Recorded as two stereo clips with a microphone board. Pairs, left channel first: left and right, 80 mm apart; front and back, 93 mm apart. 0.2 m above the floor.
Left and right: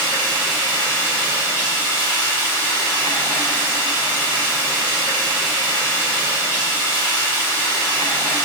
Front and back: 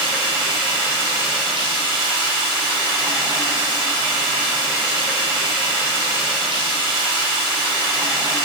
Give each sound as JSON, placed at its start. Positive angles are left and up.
{"t": 0.0, "sound": "running water", "azimuth_deg": 150, "distance_m": 1.8}